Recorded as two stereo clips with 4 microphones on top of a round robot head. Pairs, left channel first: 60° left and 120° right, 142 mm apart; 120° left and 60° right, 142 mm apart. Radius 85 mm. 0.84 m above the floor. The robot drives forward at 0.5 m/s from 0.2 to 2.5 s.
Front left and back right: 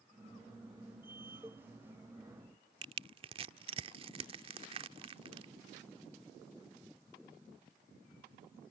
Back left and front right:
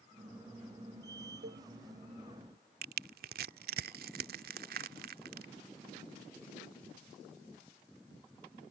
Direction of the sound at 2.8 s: 70° right.